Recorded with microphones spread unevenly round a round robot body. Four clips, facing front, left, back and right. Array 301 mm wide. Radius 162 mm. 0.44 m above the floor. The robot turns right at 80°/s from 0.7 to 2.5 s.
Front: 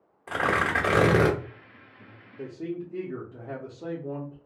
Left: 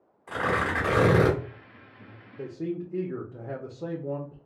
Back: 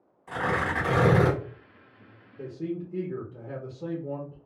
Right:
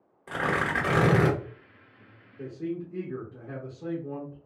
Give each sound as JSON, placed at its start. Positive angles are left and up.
{"t": 0.3, "sound": "tearing paper", "azimuth_deg": -45, "distance_m": 1.5}
{"t": 2.4, "sound": "a man speaking", "azimuth_deg": 90, "distance_m": 0.8}